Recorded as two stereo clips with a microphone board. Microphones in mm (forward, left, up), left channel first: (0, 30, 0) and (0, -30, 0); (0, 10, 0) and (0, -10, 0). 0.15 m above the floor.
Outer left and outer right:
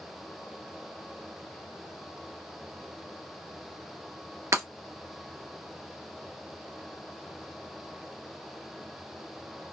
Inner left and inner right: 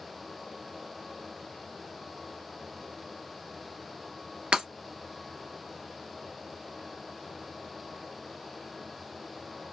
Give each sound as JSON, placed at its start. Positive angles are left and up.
{"t": 4.5, "sound": "breaking glass", "side_deg": -60, "distance_m": 1.3}